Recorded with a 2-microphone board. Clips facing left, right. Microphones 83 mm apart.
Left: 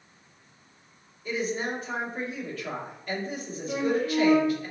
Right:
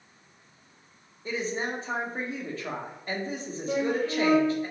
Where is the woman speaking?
30° right (ahead or behind), 1.2 m.